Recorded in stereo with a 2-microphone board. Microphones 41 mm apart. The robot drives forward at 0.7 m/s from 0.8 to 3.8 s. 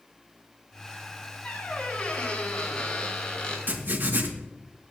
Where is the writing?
50° right (ahead or behind), 2.5 m.